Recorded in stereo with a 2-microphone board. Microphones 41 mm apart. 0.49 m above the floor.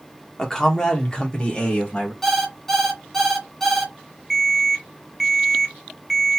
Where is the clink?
No clink in this recording.